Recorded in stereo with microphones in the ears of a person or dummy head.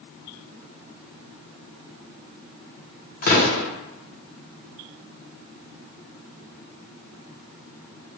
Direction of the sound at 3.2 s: 40° left (ahead or behind).